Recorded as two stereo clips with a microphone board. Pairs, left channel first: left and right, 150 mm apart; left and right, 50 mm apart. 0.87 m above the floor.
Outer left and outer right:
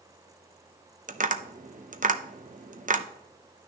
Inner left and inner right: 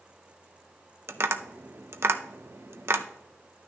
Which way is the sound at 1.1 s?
55° right (ahead or behind).